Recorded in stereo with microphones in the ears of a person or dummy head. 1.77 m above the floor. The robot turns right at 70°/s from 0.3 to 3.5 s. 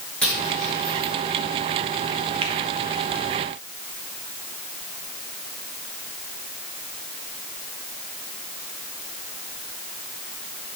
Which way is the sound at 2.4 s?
30° right (ahead or behind).